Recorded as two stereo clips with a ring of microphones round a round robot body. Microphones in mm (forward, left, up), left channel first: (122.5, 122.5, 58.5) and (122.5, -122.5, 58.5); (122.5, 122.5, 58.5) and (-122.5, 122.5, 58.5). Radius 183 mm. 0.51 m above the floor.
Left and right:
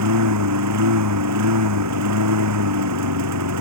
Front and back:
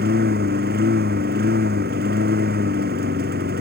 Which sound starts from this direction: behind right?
A lawn mower, at 0.0 s.